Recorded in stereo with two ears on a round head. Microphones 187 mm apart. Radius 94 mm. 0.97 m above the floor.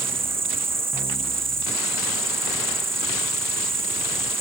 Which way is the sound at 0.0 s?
15° right (ahead or behind).